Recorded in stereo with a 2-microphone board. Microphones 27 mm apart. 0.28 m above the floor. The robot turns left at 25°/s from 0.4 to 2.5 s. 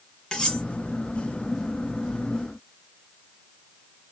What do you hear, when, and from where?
0.3 s cutlery clinking: 25° left (ahead or behind), 1.5 m; by 0.6 s 20° left (ahead or behind), 1.5 m